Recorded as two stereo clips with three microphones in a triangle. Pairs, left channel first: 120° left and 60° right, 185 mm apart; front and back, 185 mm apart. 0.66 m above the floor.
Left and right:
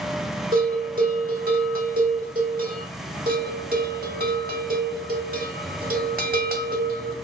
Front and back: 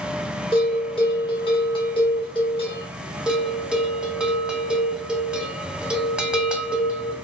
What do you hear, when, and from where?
0.5 s a bell: 55° right, 1.2 m
3.3 s a bell: 95° right, 0.8 m